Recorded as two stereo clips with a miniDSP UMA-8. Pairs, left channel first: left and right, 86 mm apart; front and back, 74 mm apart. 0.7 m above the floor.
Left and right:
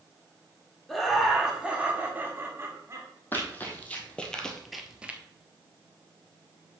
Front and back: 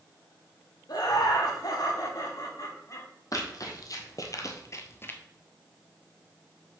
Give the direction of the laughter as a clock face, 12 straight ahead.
12 o'clock.